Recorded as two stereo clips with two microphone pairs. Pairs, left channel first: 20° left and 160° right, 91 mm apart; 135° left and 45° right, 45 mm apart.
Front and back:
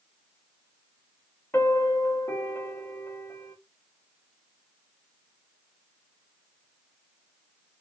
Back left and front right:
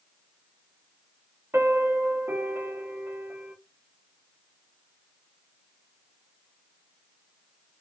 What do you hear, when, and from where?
1.5 s a piano: 40° right, 0.6 m